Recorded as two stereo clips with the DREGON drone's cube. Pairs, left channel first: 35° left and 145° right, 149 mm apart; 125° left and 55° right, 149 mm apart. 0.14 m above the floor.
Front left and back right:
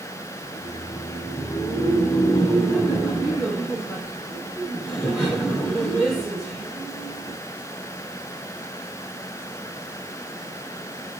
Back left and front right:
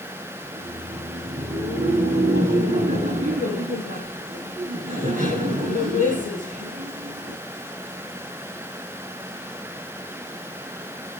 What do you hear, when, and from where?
0.4 s laughter: 55° right, 3.5 m